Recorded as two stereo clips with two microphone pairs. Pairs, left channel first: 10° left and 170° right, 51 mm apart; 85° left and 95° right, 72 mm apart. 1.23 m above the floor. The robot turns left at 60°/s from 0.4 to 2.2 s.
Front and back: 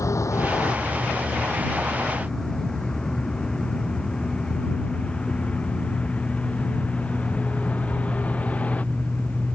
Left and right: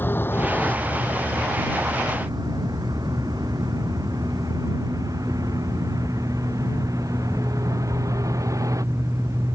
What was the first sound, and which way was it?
A vehicle, 25° left.